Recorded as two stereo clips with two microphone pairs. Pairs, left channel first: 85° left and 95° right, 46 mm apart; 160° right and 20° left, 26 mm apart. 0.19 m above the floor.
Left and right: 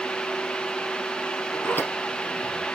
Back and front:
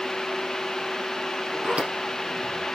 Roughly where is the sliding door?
Ahead left.